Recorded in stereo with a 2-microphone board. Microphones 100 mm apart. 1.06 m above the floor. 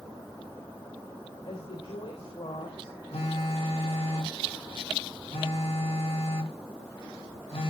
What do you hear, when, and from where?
1.4 s a woman speaking: 85° left, 4 m
3.1 s a phone buzzing: 70° left (ahead or behind), 1.9 m